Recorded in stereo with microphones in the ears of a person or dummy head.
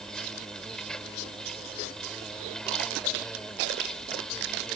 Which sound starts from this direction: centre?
An insect, at 0.0 s.